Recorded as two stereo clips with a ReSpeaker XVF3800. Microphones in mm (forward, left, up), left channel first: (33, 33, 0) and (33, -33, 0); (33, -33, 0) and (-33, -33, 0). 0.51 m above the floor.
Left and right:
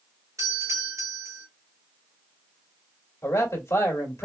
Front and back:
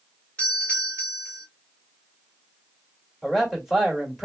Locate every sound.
0.4 s a doorbell: 70° right, 2.5 m
3.2 s a man speaking: 95° left, 1.7 m